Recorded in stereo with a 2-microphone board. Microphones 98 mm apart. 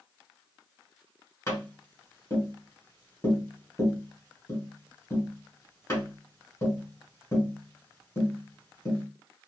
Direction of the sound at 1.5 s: 25° left (ahead or behind).